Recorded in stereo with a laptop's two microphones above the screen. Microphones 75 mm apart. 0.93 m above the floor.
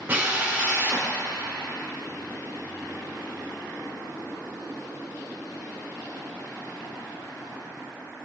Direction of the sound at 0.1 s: 25° right (ahead or behind).